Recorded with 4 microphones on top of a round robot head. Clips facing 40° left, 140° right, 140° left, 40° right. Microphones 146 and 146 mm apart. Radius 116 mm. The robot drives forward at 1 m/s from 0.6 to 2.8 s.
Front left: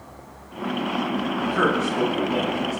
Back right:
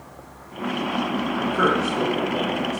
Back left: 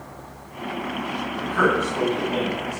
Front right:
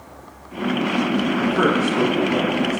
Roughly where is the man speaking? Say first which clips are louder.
Back right 1 dB, even; ahead left.